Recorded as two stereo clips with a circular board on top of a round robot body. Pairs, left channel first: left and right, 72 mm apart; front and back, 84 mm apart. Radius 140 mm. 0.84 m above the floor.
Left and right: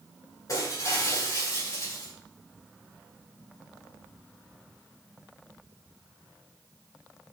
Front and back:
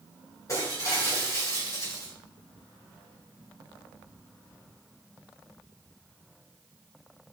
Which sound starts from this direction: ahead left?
Breaking glass, at 0.5 s.